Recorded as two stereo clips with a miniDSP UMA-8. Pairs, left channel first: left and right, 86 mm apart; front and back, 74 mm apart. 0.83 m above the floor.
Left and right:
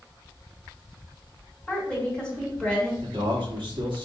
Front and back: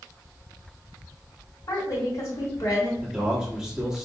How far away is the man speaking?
About 1.5 m.